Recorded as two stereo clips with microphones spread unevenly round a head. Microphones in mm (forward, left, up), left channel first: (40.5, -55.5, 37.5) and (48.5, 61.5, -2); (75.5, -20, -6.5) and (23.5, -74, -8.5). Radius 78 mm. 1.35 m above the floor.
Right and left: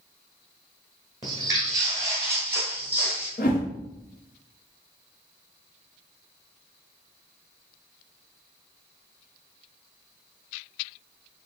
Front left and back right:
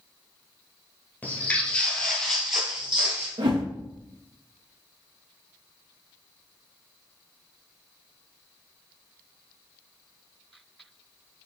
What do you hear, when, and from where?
1.2 s footsteps: 20° left, 1.4 m; by 3.3 s 145° right, 1.4 m
3.4 s a whoosh: 135° right, 0.7 m